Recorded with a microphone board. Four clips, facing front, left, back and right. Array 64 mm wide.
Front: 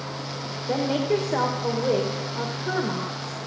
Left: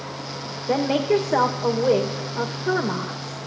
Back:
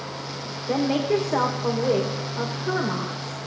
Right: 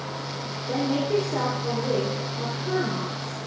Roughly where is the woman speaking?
Left.